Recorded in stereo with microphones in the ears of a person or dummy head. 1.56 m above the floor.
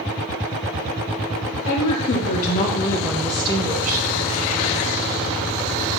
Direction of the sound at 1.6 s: 70° left (ahead or behind).